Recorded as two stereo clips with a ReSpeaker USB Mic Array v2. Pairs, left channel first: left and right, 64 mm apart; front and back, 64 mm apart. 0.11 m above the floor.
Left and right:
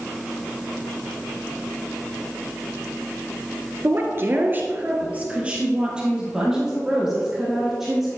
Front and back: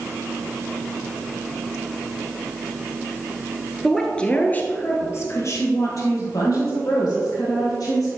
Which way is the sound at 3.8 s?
85° right.